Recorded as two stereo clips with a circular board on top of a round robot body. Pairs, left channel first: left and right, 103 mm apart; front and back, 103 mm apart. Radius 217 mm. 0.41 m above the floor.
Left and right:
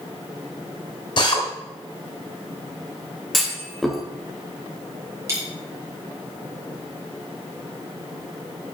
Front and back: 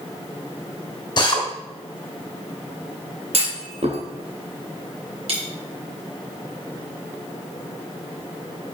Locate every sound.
1.2 s a drill: 50° left, 3 m
3.3 s a clunk: straight behind, 2.5 m
5.3 s a dropped coin: 150° right, 3 m